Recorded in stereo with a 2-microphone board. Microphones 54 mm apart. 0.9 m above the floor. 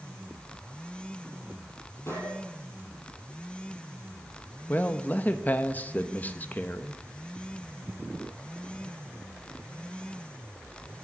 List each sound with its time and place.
2.1 s a gunshot: 55° left (ahead or behind), 6.5 m
4.7 s a man speaking: 30° left (ahead or behind), 0.9 m